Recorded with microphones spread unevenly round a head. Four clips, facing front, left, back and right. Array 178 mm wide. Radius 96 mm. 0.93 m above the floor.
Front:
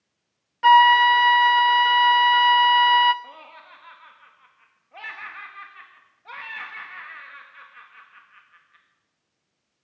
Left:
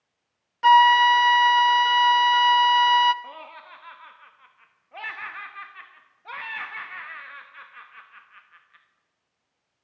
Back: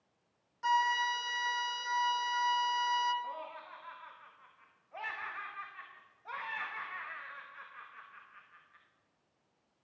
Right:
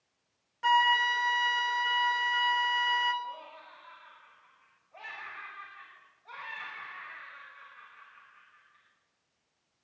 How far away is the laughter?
About 1.3 m.